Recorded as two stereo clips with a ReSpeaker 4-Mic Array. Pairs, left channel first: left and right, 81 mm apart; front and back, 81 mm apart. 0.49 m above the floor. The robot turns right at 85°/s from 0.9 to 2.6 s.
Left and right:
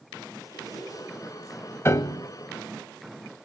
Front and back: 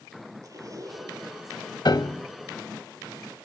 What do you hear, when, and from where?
0.4 s a zipper: 135° left, 4 m; by 1.2 s 165° left, 4 m
1.9 s a piano: 30° left, 0.7 m; by 2.3 s 65° left, 0.7 m